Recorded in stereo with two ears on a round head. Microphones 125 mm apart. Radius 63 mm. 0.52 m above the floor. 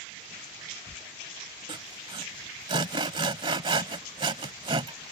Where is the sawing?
35° right (ahead or behind).